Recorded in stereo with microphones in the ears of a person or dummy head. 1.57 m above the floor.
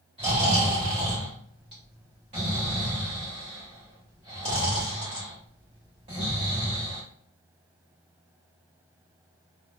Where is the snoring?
30° right (ahead or behind), 1.2 m.